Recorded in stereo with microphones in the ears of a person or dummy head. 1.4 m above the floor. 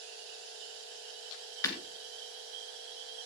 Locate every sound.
1.6 s breaking glass: 20° left (ahead or behind), 3 m